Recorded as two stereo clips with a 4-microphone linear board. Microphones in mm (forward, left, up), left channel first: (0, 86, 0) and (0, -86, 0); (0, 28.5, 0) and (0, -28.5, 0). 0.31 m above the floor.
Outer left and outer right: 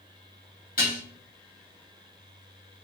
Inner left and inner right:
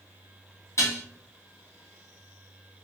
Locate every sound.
0.8 s dishes clattering: 55° left (ahead or behind), 1.6 m